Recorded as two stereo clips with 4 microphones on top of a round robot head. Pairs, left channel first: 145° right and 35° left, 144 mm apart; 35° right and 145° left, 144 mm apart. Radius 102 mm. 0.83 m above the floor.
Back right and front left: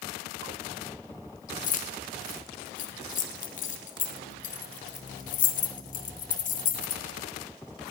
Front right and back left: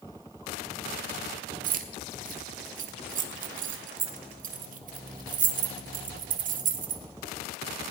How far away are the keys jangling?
About 1.1 m.